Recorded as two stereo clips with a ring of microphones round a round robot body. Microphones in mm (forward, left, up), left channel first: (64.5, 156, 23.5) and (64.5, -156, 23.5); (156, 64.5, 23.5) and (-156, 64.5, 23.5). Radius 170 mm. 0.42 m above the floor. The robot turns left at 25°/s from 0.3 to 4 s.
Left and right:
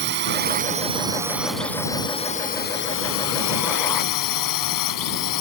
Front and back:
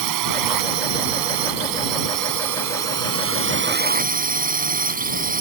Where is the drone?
150° right; by 5.4 s 120° left.